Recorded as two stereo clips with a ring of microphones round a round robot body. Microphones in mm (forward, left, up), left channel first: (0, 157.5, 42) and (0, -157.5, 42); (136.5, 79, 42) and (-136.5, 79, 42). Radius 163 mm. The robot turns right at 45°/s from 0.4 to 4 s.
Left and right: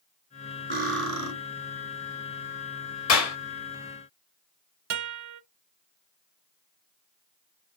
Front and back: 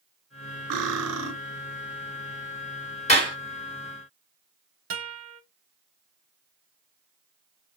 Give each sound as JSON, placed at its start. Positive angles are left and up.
{"t": 0.7, "sound": "cutlery clinking", "azimuth_deg": -155, "distance_m": 2.5}
{"t": 3.1, "sound": "a clap", "azimuth_deg": 65, "distance_m": 1.6}
{"t": 4.9, "sound": "a guitar", "azimuth_deg": -130, "distance_m": 0.5}